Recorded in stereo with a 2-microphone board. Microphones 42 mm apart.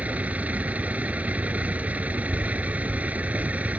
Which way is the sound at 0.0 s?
40° right (ahead or behind).